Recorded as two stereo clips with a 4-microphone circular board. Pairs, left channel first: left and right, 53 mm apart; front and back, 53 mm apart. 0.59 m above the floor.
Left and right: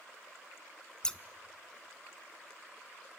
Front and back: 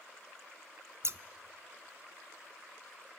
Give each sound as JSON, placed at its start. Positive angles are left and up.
{"t": 1.0, "sound": "scissors", "azimuth_deg": 160, "distance_m": 0.6}